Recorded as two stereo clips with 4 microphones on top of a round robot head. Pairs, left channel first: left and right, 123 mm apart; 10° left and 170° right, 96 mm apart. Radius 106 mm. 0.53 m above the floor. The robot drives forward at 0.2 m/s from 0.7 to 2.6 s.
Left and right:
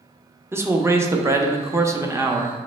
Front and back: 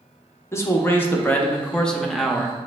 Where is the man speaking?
30° right, 0.7 m; by 2.6 s 95° right, 0.6 m.